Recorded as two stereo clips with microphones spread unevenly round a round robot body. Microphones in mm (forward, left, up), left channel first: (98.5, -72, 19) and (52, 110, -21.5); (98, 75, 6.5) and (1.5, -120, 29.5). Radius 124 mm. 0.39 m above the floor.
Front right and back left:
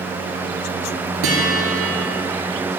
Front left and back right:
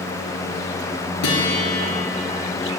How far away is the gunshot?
No gunshot in this recording.